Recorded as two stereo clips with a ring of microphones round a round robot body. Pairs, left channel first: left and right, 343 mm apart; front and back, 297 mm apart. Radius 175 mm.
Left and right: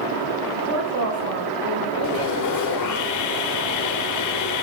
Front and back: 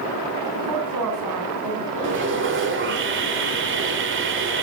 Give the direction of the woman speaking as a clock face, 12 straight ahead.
5 o'clock.